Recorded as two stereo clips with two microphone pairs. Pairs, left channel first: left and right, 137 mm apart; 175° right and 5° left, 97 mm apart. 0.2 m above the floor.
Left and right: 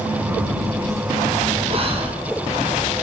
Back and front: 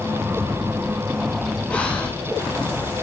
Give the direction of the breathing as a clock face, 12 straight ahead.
3 o'clock.